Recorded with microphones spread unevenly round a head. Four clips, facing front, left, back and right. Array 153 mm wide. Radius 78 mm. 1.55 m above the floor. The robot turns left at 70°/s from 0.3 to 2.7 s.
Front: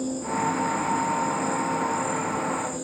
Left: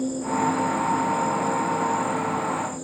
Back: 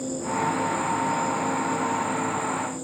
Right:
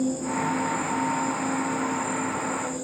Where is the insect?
135° left, 6.5 m; by 2.8 s 35° right, 6.5 m.